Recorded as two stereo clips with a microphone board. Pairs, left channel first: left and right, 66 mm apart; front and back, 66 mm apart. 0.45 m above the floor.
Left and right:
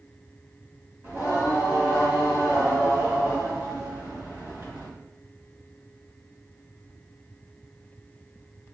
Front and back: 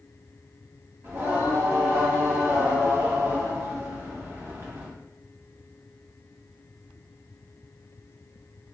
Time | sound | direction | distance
1.0 | singing | 145° right | 2 m